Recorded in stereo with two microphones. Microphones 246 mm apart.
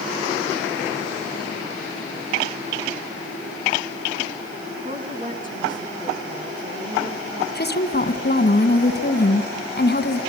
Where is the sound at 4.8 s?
30° right (ahead or behind), 2.5 m.